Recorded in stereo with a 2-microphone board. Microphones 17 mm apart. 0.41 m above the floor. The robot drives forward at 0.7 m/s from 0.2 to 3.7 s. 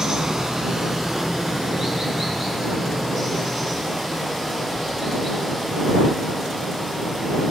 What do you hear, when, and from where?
0.0 s running water: 40° right (ahead or behind), 1.4 m; by 7.5 s 15° right (ahead or behind), 3.5 m